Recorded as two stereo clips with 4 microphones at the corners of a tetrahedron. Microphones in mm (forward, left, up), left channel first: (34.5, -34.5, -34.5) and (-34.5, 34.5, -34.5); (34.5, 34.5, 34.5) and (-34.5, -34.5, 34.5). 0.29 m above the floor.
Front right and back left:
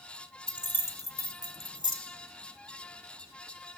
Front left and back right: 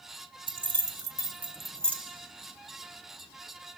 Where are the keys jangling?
120° right, 1.4 m; by 2.0 s 25° right, 1.2 m.